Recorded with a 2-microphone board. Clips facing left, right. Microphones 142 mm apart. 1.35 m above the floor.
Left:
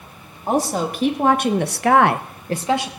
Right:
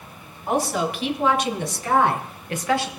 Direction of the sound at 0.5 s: 40° left (ahead or behind).